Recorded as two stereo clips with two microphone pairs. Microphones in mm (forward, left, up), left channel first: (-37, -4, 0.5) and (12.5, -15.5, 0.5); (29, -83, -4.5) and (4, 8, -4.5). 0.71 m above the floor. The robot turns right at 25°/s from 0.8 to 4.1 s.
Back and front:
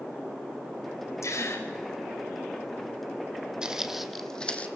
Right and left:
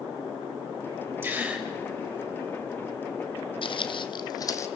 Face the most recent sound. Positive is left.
turn(degrees=-130)